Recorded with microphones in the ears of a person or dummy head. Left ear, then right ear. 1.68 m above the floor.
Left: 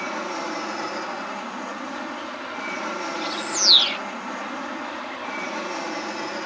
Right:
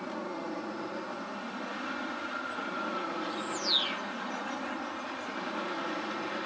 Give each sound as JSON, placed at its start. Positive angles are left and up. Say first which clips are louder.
{"t": 0.0, "sound": "an aircraft", "louder": "left 9 dB", "side_deg": 65}
{"t": 3.1, "sound": "a bird", "louder": "left 9 dB", "side_deg": 35}